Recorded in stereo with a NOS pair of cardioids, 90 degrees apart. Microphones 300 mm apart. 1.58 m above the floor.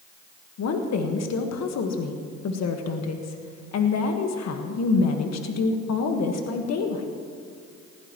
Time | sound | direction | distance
0.6 | a woman speaking | 60° left | 1.6 m